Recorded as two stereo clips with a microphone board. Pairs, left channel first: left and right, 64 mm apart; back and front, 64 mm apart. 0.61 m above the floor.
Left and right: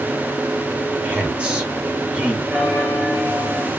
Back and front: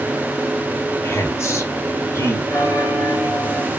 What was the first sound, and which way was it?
A woman speaking, 155° right.